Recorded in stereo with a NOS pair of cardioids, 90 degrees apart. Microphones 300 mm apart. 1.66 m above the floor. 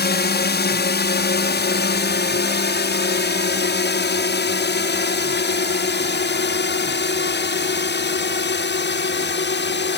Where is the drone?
35° left.